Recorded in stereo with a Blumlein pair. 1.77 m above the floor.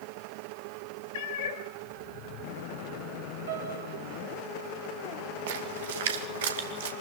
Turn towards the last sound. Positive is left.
turn(degrees=-55)